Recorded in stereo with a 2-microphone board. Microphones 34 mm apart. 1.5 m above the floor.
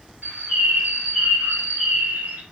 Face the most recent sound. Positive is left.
turn(degrees=-65)  # may be behind; listen again after turning